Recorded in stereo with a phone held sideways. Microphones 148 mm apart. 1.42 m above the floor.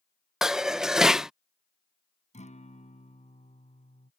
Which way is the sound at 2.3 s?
50° left (ahead or behind).